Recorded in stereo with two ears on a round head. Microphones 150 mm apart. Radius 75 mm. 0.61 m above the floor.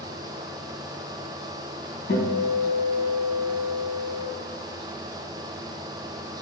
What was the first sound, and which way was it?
A guitar, 75° left (ahead or behind).